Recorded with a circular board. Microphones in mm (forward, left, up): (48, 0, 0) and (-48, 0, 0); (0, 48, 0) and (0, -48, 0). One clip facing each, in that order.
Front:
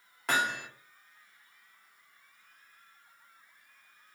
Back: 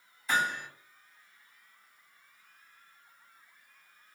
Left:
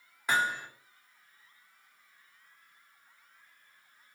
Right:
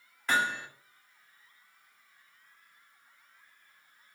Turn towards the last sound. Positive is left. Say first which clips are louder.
# even, even
turn(degrees=15)